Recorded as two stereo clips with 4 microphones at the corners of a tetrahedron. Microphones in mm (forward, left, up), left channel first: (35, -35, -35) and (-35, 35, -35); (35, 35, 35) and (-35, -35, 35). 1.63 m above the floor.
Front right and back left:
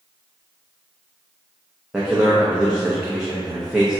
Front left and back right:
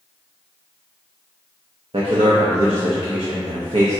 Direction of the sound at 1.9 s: 140° right.